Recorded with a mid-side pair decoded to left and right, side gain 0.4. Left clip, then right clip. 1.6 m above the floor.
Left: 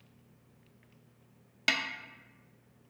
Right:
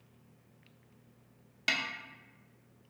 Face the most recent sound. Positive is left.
turn(degrees=35)